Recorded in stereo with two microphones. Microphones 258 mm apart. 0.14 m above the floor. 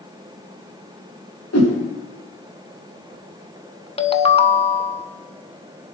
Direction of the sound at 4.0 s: 25° left (ahead or behind).